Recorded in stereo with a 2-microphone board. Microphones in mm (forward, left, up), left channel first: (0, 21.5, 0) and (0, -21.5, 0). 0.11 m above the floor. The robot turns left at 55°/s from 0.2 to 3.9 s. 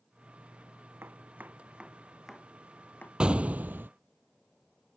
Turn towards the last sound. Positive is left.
turn(degrees=-65)